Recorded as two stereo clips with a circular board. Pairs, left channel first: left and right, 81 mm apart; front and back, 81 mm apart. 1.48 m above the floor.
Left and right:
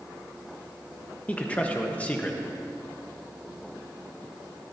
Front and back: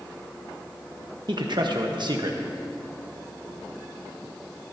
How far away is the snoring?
I don't hear snoring.